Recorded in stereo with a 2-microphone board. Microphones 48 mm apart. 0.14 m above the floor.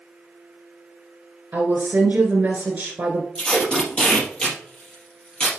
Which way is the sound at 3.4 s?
15° left (ahead or behind).